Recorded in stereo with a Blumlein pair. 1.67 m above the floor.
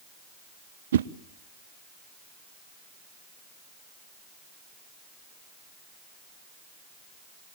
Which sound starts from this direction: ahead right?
A whoosh, at 0.9 s.